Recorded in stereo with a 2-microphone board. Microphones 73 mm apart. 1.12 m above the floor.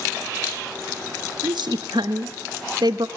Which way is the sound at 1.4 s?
85° right.